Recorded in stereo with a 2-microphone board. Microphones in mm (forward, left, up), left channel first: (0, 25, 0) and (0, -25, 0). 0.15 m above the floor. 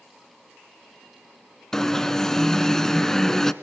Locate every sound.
1.7 s an alarm: 10° left (ahead or behind), 1.1 m